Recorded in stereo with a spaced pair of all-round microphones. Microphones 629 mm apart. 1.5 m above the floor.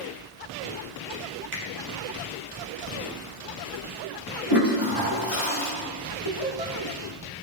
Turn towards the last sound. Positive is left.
turn(degrees=45)  # may be behind; listen again after turning